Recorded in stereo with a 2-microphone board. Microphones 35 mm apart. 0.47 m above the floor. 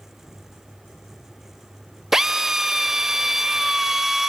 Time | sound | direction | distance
2.1 | a drill | 10° right (ahead or behind) | 0.8 m